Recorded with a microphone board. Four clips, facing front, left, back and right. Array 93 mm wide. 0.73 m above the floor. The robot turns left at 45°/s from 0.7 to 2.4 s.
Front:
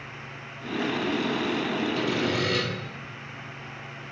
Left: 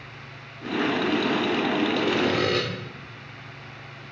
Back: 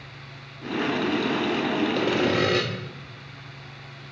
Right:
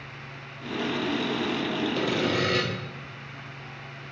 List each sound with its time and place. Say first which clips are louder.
1.9 s sawing: left 3 dB, back 4 dB; 165° left, 1.6 m; by 2.6 s 145° left, 1.6 m